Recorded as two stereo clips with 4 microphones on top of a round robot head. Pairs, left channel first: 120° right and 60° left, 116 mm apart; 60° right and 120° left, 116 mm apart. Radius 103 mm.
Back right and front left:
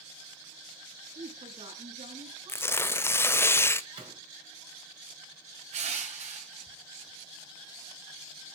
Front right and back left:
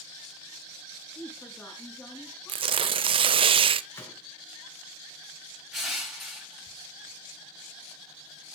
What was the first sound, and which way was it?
A woman speaking, 15° left.